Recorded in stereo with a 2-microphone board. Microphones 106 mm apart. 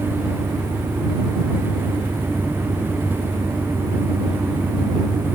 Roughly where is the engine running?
Centre.